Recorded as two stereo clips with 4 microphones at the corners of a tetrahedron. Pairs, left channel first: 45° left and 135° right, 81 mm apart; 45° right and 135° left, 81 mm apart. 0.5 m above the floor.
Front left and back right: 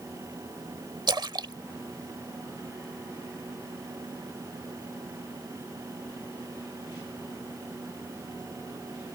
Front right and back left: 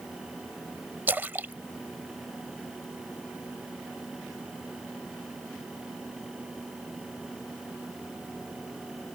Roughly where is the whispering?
No whispering in this recording.